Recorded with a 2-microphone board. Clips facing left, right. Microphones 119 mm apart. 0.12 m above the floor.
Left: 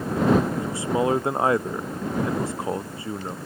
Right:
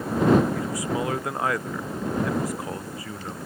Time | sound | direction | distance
0.6 | a man speaking | 30° left (ahead or behind) | ?